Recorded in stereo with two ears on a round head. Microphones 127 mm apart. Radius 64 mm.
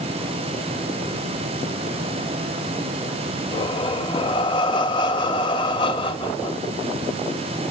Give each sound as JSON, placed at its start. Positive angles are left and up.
{"t": 3.5, "sound": "breathing", "side_deg": 35, "distance_m": 0.6}